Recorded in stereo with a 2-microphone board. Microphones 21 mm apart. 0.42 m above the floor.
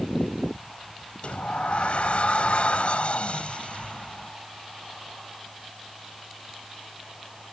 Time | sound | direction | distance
1.2 | a sliding door | 70° left (ahead or behind) | ?